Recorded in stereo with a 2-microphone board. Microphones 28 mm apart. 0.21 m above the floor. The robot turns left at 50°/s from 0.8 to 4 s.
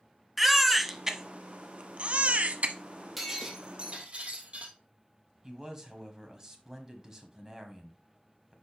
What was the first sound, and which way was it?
A baby crying, centre (ahead or behind).